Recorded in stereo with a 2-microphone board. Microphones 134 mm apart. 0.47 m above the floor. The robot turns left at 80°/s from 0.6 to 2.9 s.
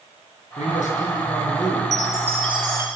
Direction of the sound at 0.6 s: 115° left.